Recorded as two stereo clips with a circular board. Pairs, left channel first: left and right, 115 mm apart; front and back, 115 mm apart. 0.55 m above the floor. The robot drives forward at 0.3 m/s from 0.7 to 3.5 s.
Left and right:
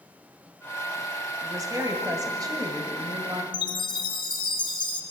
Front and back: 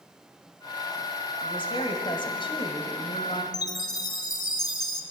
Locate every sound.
1.4 s a woman speaking: 35° right, 3 m; by 3.4 s 40° right, 2.5 m
3.5 s a chime: 50° left, 1.5 m